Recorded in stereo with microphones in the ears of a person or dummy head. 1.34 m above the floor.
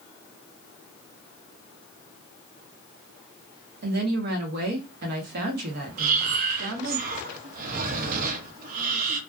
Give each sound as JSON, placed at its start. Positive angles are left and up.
{"t": 3.8, "sound": "a woman speaking", "side_deg": -55, "distance_m": 0.7}
{"t": 6.0, "sound": "breathing", "side_deg": -50, "distance_m": 0.5}